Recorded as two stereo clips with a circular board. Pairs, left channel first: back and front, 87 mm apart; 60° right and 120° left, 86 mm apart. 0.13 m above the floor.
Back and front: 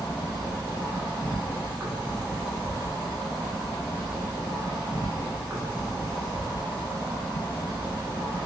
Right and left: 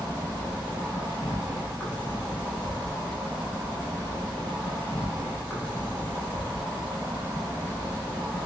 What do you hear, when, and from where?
0.0 s an insect: 15° right, 1.1 m